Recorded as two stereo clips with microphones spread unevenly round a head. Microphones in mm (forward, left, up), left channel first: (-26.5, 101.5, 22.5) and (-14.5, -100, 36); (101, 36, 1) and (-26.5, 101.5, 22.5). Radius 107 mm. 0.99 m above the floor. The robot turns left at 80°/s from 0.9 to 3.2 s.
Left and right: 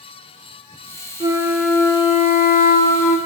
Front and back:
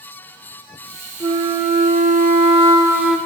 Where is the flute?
150° right, 0.8 m; by 3.2 s 55° left, 0.8 m.